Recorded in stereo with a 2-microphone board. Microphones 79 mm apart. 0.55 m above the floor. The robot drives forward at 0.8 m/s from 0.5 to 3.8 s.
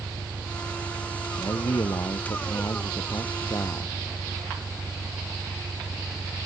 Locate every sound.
0.0 s an engine running: 60° right (ahead or behind)
1.4 s a man speaking: 55° left (ahead or behind); by 4.0 s 50° left (ahead or behind)